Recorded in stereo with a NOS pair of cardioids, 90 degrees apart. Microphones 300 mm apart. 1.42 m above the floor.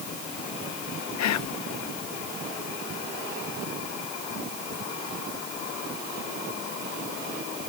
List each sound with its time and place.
1.2 s whispering: 65° left